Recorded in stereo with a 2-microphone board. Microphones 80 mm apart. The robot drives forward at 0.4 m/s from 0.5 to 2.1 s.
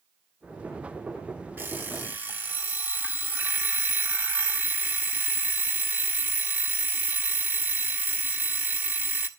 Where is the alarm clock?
25° right (ahead or behind), 1.3 m; by 9.3 s 20° right (ahead or behind), 1.5 m.